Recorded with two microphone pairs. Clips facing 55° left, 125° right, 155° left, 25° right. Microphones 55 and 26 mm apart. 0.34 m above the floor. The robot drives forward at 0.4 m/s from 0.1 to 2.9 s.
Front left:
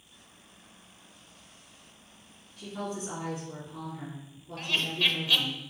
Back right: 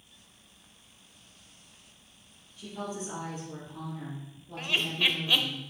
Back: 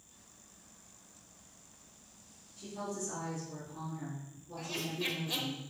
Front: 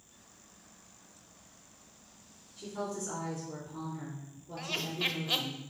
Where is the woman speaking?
15° left, 3.5 m; by 5.6 s 20° left, 3.5 m.